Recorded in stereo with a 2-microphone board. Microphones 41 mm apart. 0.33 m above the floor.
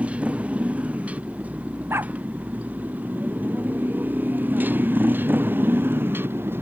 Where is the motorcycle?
35° right (ahead or behind); by 6.6 s 70° right (ahead or behind).